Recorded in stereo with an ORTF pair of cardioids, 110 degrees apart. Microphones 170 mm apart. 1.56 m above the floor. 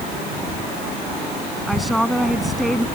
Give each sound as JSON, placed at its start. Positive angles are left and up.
{"t": 1.7, "sound": "a woman speaking", "azimuth_deg": 0}